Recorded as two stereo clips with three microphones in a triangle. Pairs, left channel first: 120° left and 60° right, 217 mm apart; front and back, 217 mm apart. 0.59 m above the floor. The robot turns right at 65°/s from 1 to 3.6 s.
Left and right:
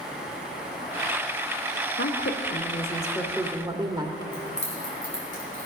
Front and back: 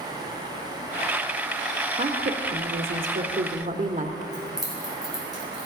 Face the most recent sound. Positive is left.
turn(degrees=90)